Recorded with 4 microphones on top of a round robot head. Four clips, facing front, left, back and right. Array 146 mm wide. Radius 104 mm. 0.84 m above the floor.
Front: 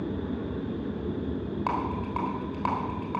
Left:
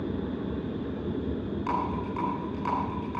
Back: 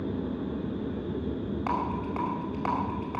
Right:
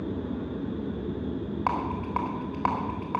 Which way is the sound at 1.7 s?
70° right.